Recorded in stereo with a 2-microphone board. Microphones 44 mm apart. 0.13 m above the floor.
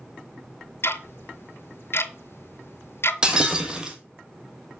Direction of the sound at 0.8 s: 65° left (ahead or behind).